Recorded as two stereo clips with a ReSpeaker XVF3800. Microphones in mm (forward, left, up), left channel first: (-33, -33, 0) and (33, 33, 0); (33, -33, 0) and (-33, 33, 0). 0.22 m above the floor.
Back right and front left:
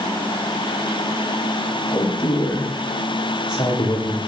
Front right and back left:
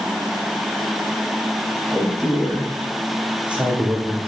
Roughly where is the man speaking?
Behind right.